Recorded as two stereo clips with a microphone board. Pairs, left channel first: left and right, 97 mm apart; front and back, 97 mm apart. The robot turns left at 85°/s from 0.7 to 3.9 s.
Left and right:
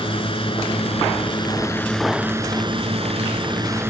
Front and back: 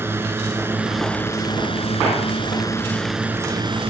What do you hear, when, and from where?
0.0 s a drone: 115° left; by 3.9 s 160° right